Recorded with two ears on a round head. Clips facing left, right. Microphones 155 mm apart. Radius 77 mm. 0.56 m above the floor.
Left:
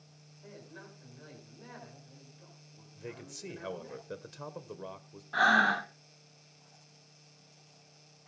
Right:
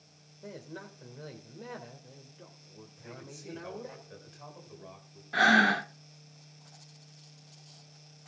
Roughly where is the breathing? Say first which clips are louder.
Right 3 dB; right.